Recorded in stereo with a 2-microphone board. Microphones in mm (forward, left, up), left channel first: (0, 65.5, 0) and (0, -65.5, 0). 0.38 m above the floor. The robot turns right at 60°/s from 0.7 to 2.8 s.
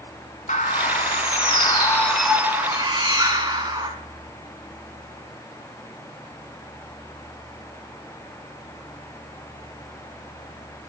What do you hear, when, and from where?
0.5 s a bird: 90° left, 1.1 m; by 3.9 s 145° right, 1.1 m